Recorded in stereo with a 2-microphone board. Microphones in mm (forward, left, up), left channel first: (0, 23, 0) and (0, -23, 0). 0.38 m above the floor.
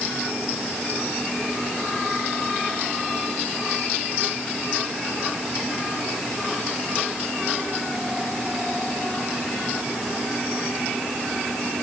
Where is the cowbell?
No cowbell in this recording.